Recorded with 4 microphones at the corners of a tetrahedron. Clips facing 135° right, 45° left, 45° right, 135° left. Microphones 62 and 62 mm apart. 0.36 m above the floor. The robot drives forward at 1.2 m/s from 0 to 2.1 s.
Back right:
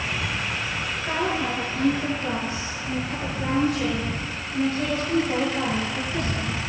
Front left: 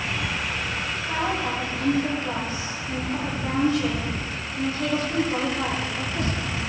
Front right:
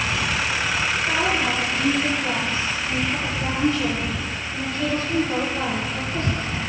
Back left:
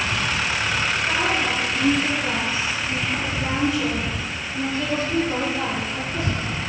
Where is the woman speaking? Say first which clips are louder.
Back right 1 dB, front right 1 dB; 135° right, 7.5 m; by 6.7 s 145° right, 8 m.